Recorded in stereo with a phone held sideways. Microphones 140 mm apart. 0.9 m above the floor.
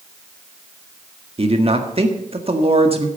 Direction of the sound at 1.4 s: 45° right (ahead or behind).